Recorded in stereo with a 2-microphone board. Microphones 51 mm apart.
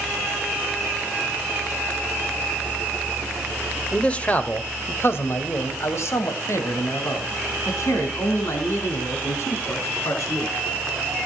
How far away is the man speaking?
About 1.4 m.